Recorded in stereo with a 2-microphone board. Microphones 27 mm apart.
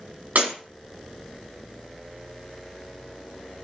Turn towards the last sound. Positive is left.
turn(degrees=-85)